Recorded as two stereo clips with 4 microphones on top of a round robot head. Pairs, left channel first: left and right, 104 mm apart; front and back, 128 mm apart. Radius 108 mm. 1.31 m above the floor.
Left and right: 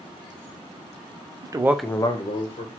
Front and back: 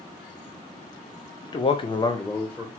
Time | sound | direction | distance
1.4 | a man speaking | 45° right | 0.7 m